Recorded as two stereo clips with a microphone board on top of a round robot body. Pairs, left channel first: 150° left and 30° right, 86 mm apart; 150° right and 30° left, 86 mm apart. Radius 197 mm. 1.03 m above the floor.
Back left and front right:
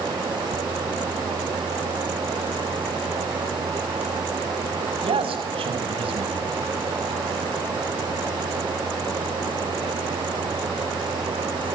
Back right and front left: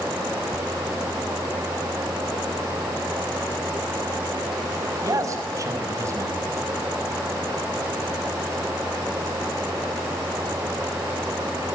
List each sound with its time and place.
5.0 s a man speaking: 25° right, 6.5 m